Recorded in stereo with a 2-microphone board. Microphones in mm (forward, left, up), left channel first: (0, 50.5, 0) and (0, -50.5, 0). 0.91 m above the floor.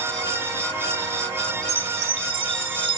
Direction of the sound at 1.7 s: 65° right (ahead or behind).